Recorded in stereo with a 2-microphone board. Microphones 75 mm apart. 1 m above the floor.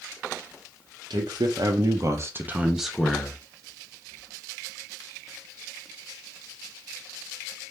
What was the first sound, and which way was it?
A man speaking, 70° right (ahead or behind).